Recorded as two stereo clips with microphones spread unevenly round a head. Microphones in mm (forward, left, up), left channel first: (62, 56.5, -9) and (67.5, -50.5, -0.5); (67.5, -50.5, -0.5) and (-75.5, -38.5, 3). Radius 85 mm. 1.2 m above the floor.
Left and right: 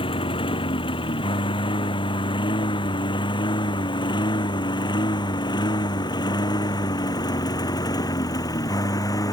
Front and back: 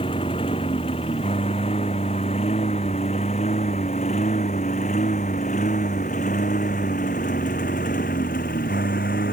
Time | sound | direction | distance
0.0 | a lawn mower | 60° left | ?